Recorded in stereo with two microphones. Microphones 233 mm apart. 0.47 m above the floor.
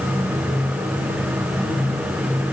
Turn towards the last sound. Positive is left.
No sound to turn to.